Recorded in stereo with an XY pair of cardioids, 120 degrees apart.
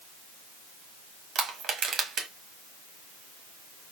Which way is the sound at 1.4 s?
50° right.